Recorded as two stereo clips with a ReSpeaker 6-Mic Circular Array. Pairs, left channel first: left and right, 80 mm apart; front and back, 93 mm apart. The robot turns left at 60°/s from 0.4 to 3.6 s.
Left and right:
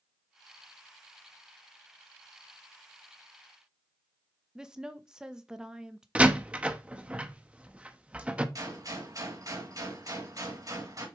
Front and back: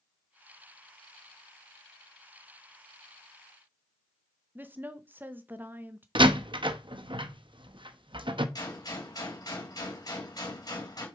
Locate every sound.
4.5 s a woman speaking: 155° right, 0.7 m
6.2 s a door slam: 160° right, 0.7 m
8.6 s a gunshot: 45° right, 4 m